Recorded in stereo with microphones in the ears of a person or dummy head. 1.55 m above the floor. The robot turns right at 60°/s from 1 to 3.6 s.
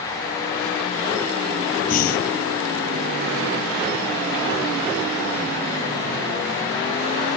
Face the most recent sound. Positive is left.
turn(degrees=140)